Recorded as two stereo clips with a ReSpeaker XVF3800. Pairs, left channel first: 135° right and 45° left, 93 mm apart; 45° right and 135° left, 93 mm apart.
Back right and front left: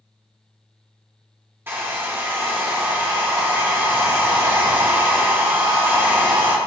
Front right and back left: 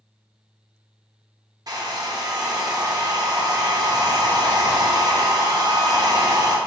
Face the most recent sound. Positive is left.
turn(degrees=105)